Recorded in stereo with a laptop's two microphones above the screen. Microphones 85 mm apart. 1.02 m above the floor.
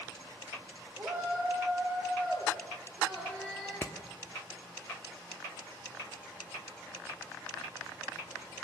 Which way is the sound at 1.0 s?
30° right (ahead or behind).